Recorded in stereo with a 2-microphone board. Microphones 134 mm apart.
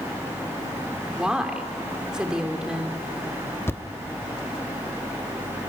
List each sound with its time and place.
1.2 s a woman speaking: 5° right (ahead or behind), 2.5 m
3.7 s a thud: 20° left (ahead or behind), 0.8 m